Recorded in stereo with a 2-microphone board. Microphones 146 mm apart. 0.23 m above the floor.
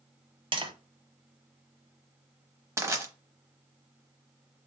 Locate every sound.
0.5 s tapping: 35° right (ahead or behind), 0.7 m
2.8 s crushing: 20° right (ahead or behind), 0.8 m